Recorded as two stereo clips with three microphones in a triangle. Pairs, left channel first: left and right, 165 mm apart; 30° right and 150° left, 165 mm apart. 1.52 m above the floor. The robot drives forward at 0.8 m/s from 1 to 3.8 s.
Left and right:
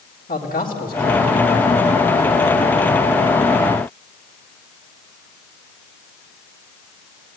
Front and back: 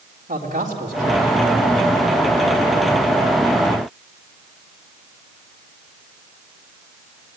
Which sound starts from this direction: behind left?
A man speaking, at 0.3 s.